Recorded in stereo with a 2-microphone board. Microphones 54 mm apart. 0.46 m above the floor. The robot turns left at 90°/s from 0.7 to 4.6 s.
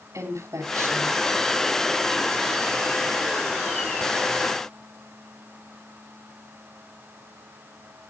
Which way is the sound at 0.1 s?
110° right.